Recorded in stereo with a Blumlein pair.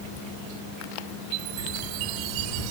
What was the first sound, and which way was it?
A chime, 45° right.